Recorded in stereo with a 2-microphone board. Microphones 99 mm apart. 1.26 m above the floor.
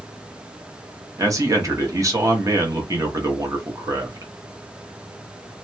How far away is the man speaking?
About 0.9 m.